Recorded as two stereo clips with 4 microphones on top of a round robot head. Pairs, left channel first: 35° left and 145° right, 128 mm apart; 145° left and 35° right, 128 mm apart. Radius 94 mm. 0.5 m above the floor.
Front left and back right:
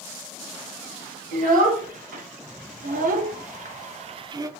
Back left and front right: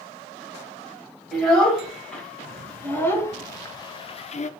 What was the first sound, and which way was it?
A child speaking, 130° right.